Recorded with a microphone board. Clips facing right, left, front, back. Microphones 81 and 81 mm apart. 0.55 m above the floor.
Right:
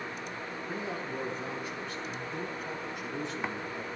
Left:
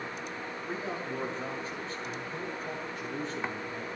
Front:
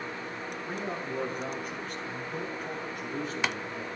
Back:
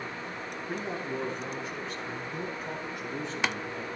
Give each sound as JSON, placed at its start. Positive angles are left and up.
{"t": 0.7, "sound": "a man speaking", "azimuth_deg": 30, "distance_m": 5.5}